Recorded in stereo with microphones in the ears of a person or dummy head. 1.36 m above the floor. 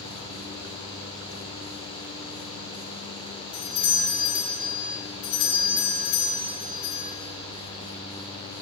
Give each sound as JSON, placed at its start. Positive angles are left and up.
{"t": 3.5, "sound": "a doorbell", "side_deg": 65, "distance_m": 4.0}